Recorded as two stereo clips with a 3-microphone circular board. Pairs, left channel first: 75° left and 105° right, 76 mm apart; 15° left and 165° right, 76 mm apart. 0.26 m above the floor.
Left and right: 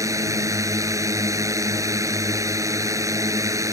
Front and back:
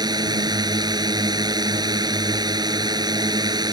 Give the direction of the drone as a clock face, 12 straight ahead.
5 o'clock.